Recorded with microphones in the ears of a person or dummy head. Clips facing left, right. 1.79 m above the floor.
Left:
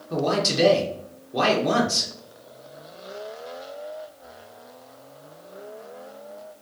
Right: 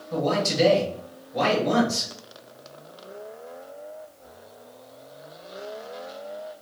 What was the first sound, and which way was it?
A man speaking, 85° left.